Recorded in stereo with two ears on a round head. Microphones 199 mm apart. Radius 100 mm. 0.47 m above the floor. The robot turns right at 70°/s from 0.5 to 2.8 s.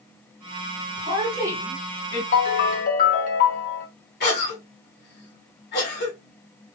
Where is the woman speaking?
30° right (ahead or behind), 1.5 m; by 2.2 s 20° left (ahead or behind), 1.5 m.